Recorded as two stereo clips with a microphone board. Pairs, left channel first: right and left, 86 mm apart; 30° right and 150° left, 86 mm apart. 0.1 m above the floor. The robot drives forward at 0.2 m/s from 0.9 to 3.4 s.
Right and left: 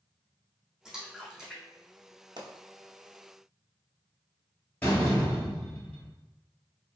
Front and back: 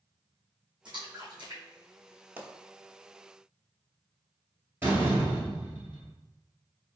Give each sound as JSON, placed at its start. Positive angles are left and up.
{"t": 0.8, "sound": "a splash", "azimuth_deg": 170, "distance_m": 1.9}
{"t": 2.4, "sound": "a pop", "azimuth_deg": 85, "distance_m": 0.8}
{"t": 4.8, "sound": "a door slam", "azimuth_deg": -155, "distance_m": 1.7}